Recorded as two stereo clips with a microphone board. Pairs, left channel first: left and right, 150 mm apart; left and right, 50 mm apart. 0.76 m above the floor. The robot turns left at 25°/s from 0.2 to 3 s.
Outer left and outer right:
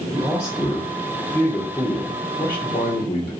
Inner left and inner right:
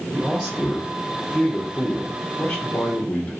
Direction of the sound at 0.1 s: 165° right.